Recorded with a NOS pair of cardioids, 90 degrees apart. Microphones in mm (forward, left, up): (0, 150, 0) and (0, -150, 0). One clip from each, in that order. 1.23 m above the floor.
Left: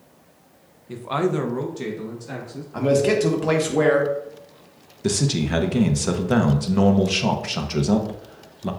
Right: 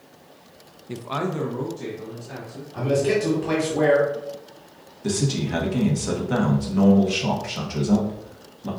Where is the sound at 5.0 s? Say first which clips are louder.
Left 2 dB; 30° left, 0.9 m.